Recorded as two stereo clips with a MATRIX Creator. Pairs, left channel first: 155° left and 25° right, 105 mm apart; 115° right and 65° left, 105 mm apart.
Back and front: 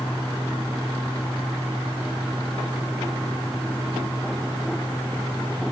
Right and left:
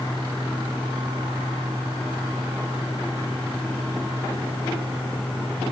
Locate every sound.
Only background noise.